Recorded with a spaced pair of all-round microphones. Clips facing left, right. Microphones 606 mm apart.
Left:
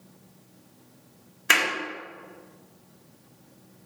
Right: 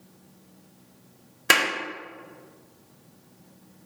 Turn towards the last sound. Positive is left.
turn(degrees=-65)  # may be behind; listen again after turning